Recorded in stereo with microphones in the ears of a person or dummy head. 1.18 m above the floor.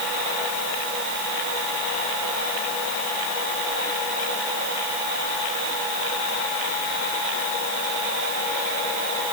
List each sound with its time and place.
Only background noise.